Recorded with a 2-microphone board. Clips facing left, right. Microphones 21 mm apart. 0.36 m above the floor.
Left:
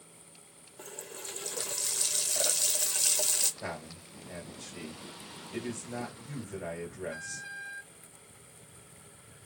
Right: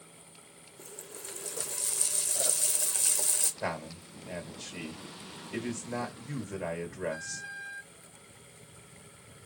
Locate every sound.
0.8 s a running tap: 40° left (ahead or behind), 0.6 m
3.6 s a man speaking: 30° right (ahead or behind), 1.8 m